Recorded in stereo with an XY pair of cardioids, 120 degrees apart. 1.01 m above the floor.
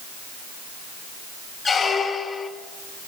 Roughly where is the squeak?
Ahead left.